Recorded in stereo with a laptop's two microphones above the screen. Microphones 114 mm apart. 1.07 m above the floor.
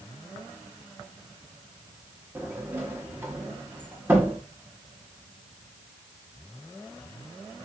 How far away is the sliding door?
About 0.8 m.